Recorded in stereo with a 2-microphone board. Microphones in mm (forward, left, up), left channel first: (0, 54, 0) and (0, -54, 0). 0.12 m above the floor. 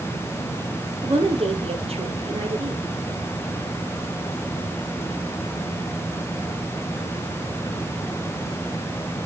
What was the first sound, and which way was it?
A woman speaking, 60° right (ahead or behind).